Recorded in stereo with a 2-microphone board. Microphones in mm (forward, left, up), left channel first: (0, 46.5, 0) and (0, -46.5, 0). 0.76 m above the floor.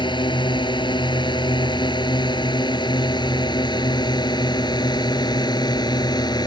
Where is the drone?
55° left (ahead or behind); by 6.5 s 50° left (ahead or behind).